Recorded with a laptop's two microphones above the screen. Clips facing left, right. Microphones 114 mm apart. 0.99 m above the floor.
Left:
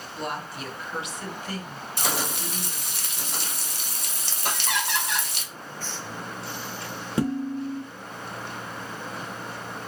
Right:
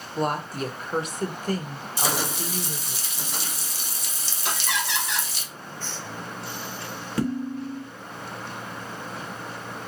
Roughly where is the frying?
Left.